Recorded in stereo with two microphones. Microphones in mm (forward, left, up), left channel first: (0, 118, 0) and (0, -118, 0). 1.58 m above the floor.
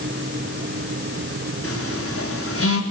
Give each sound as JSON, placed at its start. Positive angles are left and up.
{"t": 1.6, "sound": "a phone buzzing", "side_deg": 70, "distance_m": 4.0}